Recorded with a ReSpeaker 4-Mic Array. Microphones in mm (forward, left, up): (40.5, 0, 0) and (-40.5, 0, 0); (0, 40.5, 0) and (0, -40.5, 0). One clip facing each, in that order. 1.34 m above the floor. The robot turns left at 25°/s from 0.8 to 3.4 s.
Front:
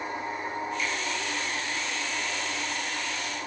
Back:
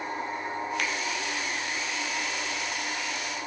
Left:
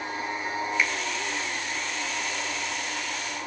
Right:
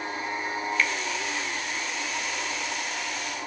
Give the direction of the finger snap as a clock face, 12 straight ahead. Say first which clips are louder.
Back 1 dB, right 1 dB; 6 o'clock.